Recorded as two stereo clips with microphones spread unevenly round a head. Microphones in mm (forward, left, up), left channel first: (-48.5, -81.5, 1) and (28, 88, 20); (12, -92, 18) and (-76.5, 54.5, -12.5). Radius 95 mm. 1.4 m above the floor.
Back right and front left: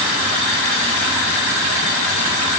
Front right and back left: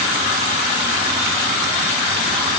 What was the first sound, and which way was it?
Only background noise.